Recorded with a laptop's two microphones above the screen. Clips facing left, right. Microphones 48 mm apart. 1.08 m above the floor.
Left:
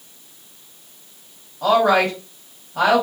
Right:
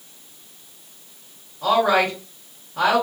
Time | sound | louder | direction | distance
1.6 | a woman speaking | left 2 dB | 70° left (ahead or behind) | 1.5 m